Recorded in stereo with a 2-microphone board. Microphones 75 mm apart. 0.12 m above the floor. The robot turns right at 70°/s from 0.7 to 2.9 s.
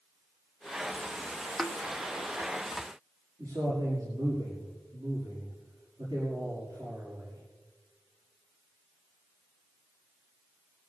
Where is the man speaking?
60° right (ahead or behind), 6 m.